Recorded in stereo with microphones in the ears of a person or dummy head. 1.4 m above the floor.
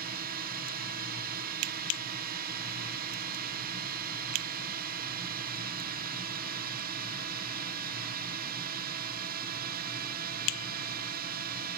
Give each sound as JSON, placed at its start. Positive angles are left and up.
{"t": 0.0, "sound": "a drone", "side_deg": -50}